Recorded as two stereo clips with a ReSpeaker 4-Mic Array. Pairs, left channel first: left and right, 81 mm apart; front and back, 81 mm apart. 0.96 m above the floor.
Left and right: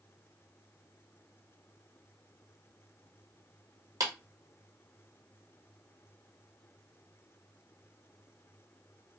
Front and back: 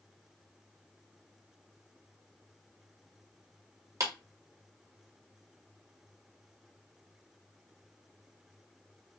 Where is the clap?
130° right, 1.0 m.